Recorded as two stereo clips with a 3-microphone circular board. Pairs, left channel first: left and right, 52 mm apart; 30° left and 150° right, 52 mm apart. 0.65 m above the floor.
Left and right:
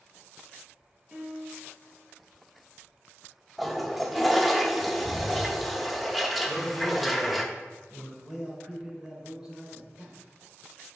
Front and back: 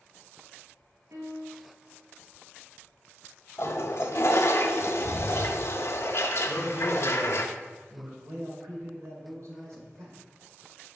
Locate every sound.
1.1 s a piano: 160° right, 2.5 m
3.6 s a toilet flushing: 5° left, 0.6 m
6.5 s a man speaking: 150° left, 3 m
8.2 s a man speaking: 170° right, 2 m